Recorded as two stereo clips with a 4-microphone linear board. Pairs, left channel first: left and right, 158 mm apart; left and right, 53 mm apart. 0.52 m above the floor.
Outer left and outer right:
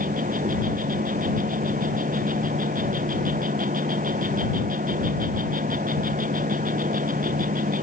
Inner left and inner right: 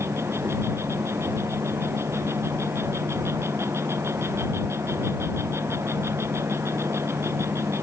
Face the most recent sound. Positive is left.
turn(degrees=-60)  # may be behind; listen again after turning